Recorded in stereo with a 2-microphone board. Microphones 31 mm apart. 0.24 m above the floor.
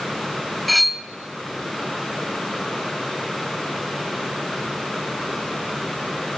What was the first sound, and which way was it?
Cutlery clinking, centre (ahead or behind).